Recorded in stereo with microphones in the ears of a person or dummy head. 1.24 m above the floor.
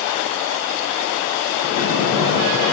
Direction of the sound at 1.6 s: 60° left (ahead or behind).